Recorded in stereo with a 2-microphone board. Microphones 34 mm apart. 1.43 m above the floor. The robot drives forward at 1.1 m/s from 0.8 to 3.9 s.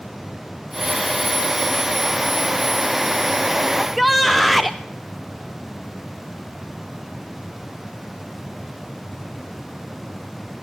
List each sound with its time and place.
3.8 s a shout: centre (ahead or behind), 0.6 m